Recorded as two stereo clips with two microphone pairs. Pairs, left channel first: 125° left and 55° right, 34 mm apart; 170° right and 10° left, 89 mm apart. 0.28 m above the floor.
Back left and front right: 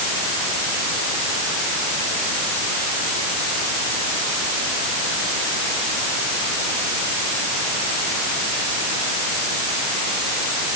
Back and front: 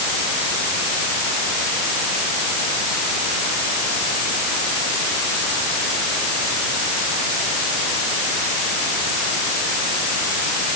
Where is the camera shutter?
I don't hear a camera shutter.